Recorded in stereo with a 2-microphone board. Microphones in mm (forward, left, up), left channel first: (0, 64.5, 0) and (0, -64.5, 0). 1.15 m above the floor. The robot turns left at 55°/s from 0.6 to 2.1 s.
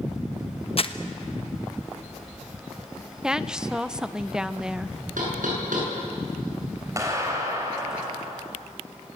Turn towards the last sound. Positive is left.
turn(degrees=-25)  # may be behind; listen again after turning